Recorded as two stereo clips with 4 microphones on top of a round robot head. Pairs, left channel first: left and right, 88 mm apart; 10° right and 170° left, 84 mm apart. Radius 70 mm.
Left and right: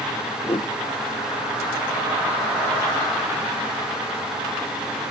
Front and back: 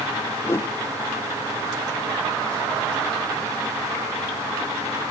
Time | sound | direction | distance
0.4 | a whoosh | 45° left | 0.5 m